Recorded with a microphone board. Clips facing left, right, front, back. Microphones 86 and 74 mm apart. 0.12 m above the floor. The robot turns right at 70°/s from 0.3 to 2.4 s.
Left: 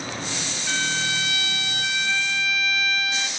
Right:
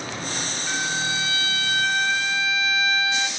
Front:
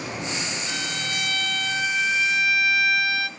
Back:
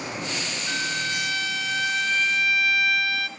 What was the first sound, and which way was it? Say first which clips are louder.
A violin: even, back 2 dB; 170° right.